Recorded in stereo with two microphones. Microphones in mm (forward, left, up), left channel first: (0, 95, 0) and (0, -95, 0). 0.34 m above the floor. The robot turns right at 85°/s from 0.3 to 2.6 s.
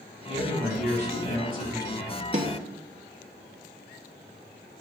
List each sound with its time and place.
0.2 s a man speaking: 45° right, 2.5 m; by 2.2 s 120° left, 2.5 m
2.3 s a snare drum: 40° right (ahead or behind), 0.8 m; by 2.5 s 60° right (ahead or behind), 0.8 m